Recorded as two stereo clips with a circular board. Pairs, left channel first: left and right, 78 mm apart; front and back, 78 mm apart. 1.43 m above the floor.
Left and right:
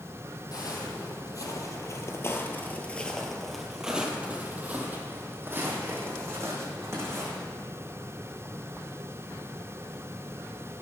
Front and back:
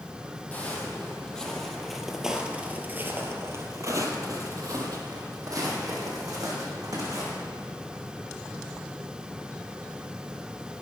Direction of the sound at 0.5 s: 65° left.